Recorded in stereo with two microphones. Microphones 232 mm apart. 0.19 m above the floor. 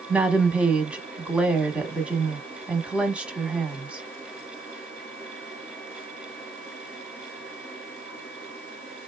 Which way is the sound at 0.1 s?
5° right (ahead or behind).